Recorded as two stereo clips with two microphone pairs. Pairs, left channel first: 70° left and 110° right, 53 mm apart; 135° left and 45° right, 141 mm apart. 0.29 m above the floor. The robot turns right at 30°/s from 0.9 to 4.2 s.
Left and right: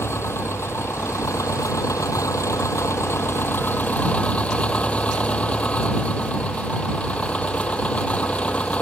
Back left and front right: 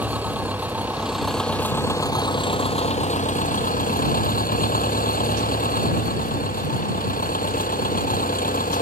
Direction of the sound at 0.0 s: 35° left.